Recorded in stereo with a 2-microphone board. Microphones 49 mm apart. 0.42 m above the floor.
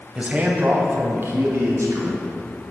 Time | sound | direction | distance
0.1 | a man speaking | 20° right (ahead or behind) | 2 m